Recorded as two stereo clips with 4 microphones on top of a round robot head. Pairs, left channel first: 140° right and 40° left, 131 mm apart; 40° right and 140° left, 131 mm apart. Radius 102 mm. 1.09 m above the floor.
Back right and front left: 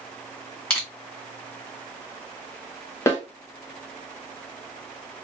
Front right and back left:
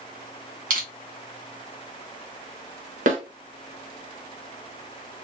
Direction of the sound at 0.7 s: 140° left.